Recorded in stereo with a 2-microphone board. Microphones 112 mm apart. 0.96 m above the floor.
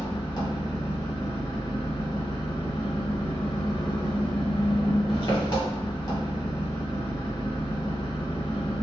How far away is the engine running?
About 1.0 m.